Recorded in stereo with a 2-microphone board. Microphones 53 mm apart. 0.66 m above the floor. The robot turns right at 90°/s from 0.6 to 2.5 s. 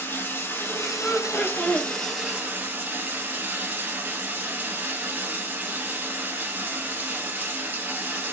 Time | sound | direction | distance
0.0 | running water | 50° left | 1.6 m
1.0 | laughter | 120° left | 0.8 m